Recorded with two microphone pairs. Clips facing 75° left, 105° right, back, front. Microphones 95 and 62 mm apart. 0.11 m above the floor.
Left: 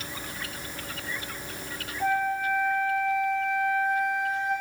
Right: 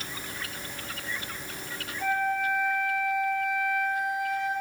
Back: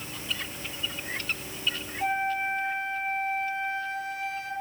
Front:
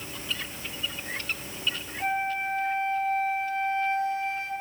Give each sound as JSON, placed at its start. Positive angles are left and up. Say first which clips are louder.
{"t": 2.0, "sound": "a flute", "louder": "left 1 dB, back 1 dB", "azimuth_deg": 35, "distance_m": 0.7}